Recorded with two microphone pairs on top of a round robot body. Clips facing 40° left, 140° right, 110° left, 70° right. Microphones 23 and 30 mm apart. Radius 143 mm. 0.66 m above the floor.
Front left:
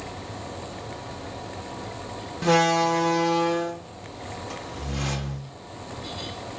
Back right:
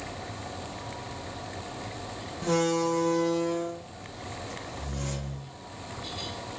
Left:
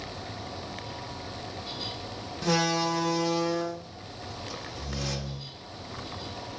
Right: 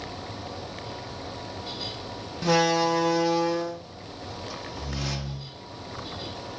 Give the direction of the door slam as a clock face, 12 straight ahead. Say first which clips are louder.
Front left 6 dB, right 4 dB; 12 o'clock.